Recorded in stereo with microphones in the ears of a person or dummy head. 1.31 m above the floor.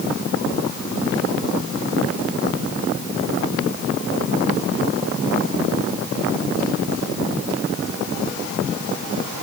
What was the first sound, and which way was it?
Only background noise.